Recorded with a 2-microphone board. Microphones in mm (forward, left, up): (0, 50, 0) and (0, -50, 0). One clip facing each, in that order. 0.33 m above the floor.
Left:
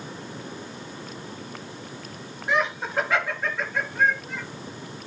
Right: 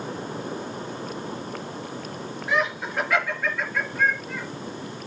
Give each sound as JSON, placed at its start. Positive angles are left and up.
{"t": 2.5, "sound": "laughter", "side_deg": 20, "distance_m": 5.0}